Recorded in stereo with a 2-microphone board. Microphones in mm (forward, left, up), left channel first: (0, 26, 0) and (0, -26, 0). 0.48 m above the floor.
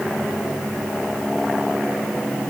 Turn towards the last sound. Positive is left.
No sound to turn to.